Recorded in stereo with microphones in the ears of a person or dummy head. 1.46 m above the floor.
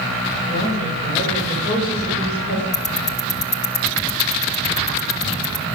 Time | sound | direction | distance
0.5 | a woman speaking | 45° left (ahead or behind) | 6 m
2.7 | ticking | 55° left (ahead or behind) | 1.3 m